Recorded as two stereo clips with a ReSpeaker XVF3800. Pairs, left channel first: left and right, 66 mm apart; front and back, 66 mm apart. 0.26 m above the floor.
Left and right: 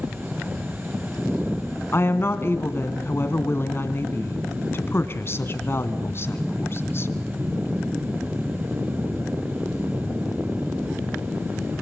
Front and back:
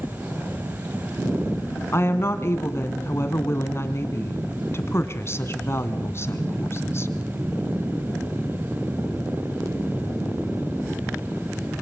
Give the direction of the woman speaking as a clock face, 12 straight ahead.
11 o'clock.